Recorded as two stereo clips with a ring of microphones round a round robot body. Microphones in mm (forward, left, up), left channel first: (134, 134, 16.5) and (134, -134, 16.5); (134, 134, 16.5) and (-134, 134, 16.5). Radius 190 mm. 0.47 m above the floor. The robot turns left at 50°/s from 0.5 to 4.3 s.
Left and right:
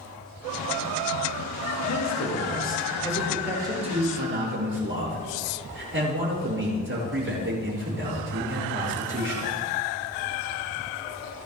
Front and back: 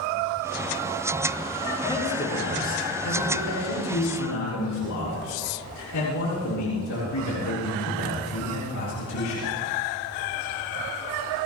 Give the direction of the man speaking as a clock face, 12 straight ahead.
10 o'clock.